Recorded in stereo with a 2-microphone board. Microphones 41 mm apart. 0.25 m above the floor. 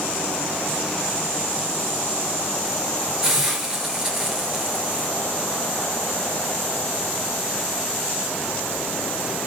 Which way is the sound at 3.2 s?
15° right (ahead or behind).